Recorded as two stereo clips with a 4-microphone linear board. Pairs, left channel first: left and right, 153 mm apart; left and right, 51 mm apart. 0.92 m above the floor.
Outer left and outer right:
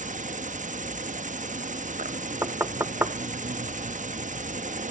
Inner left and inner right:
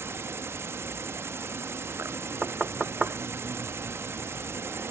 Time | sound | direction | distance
0.0 | an insect | 55° right (ahead or behind) | 0.7 m
2.4 | knocking | 15° right (ahead or behind) | 0.7 m